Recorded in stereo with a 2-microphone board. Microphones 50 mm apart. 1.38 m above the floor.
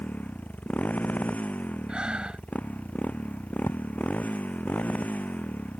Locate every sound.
0.0 s a motorcycle: 30° left (ahead or behind)
1.9 s breathing: 20° right (ahead or behind)
3.7 s a thud: 75° left (ahead or behind)